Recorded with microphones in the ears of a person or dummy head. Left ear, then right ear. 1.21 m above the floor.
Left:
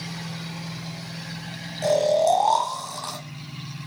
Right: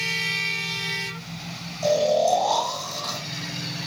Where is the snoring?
40° left (ahead or behind), 1.1 m.